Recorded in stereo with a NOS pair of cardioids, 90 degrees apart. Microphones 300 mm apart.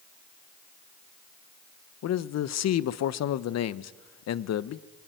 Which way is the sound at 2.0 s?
65° left.